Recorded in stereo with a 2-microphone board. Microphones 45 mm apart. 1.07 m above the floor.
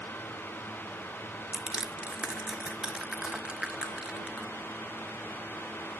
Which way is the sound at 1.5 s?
20° right (ahead or behind).